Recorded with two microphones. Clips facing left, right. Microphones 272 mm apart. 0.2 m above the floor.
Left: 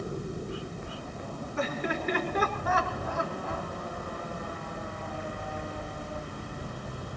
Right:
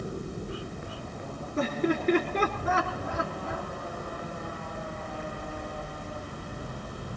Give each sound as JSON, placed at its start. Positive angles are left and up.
{"t": 1.6, "sound": "laughter", "side_deg": -40, "distance_m": 3.5}